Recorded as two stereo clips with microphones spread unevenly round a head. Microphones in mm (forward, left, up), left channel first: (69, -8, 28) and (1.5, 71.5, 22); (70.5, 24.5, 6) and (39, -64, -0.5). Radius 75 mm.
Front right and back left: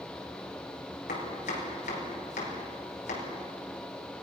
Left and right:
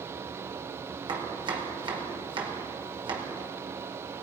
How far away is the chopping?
About 5 m.